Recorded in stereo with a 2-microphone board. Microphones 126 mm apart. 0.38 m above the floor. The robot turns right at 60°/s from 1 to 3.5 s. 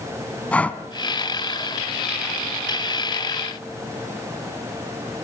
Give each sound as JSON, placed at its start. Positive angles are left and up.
{"t": 0.5, "sound": "breathing", "side_deg": 10, "distance_m": 1.4}